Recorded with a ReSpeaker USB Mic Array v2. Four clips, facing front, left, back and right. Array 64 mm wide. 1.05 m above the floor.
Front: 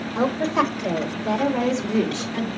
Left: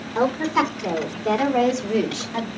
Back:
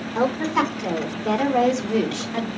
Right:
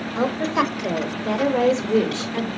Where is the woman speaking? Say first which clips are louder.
Left 1 dB, even; 135° left, 4.5 m; by 2.6 s 150° left, 3 m.